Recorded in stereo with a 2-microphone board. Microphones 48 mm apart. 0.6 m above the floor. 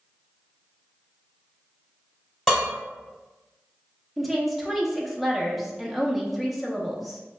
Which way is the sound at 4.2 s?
Centre (ahead or behind).